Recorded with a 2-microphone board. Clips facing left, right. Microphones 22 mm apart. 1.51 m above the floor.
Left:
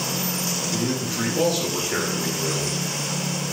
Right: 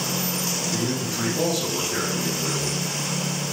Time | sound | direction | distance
0.7 | a man speaking | 5° left (ahead or behind) | 1.6 m